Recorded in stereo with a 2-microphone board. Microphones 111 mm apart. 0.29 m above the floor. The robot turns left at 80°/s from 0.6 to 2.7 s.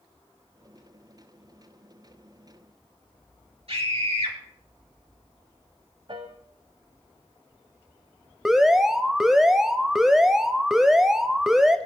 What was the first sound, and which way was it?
A scream, 60° right (ahead or behind).